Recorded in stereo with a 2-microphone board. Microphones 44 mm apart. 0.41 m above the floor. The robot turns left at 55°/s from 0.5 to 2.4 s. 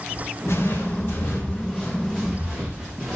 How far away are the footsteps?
About 7.5 m.